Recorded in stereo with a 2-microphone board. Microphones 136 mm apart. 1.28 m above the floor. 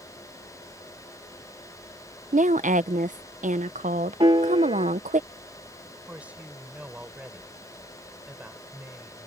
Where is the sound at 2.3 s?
70° right (ahead or behind).